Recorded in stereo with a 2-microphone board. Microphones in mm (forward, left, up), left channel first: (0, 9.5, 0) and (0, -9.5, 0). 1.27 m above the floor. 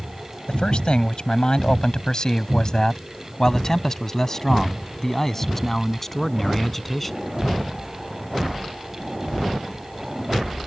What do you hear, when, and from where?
0.5 s a man speaking: 60° left (ahead or behind); by 7.2 s 15° left (ahead or behind)